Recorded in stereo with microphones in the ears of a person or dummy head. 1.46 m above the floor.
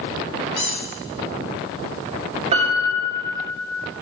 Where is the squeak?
30° left (ahead or behind), 0.6 m.